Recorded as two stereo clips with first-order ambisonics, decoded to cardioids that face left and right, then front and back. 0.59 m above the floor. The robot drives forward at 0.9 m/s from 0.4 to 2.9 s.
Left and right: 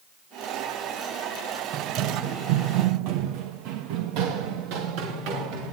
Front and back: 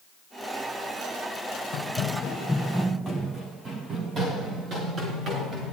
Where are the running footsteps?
40° right, 1.7 m; by 5.7 s 120° right, 4 m.